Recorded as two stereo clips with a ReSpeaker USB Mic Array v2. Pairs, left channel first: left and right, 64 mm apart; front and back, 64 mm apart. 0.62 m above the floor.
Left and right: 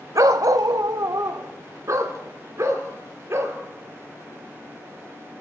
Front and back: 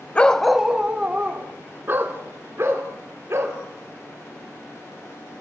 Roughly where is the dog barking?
Ahead right.